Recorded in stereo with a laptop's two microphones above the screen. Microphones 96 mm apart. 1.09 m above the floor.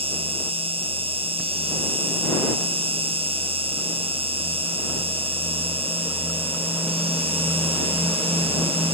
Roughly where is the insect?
Right.